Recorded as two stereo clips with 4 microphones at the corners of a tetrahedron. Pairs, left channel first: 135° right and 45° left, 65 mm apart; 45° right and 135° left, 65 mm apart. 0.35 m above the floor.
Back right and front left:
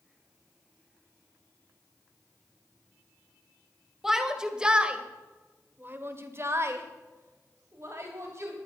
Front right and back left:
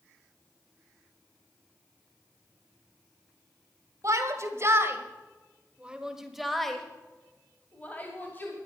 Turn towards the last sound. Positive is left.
turn(degrees=5)